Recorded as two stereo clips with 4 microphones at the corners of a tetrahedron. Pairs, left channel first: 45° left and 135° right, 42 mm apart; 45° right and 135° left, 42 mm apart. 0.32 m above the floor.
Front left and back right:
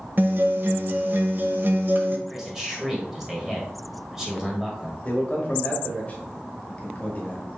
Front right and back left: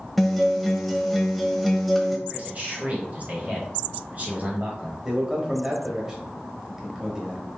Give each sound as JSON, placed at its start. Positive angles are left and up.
{"t": 0.2, "sound": "a guitar", "azimuth_deg": -135, "distance_m": 0.5}
{"t": 2.3, "sound": "a man speaking", "azimuth_deg": 150, "distance_m": 1.2}
{"t": 5.0, "sound": "a man speaking", "azimuth_deg": 70, "distance_m": 1.1}